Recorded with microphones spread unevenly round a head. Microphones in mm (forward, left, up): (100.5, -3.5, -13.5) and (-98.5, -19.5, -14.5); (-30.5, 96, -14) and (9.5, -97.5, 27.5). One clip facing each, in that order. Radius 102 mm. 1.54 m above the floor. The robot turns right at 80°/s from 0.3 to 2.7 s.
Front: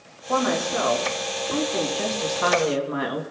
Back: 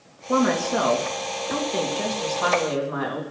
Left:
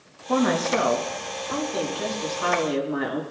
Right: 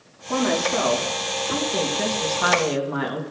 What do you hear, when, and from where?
0.3 s a woman speaking: 120° left, 2.5 m; by 3.2 s 50° right, 2.5 m